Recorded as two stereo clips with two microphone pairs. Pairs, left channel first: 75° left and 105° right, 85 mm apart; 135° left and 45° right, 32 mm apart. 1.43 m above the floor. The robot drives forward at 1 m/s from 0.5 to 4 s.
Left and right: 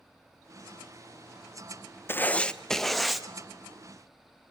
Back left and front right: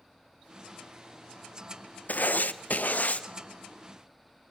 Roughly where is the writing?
Behind left.